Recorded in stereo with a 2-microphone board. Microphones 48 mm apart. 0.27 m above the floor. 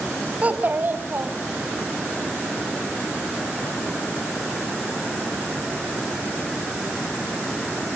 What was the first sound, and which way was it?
A child speaking, 30° right (ahead or behind).